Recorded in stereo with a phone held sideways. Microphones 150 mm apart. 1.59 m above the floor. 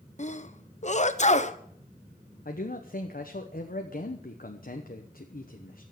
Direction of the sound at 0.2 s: 50° left (ahead or behind).